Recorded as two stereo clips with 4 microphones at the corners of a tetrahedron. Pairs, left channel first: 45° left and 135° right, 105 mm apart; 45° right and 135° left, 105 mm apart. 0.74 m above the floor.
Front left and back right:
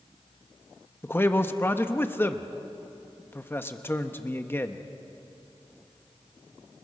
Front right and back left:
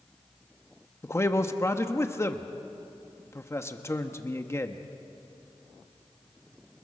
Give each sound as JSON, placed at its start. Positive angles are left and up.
{"t": 1.0, "sound": "a man speaking", "azimuth_deg": -5, "distance_m": 1.0}